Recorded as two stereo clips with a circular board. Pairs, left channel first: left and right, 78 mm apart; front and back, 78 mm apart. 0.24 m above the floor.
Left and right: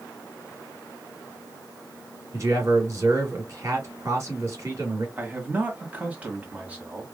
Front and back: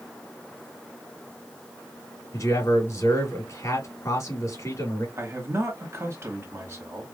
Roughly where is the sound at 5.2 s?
Behind right.